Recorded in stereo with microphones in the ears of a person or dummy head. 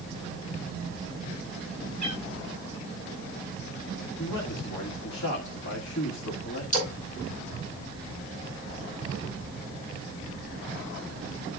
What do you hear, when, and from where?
2.0 s a cat meowing: 25° left (ahead or behind), 3 m
4.2 s a man speaking: 80° left, 2 m
6.7 s a splash: 40° left (ahead or behind), 5 m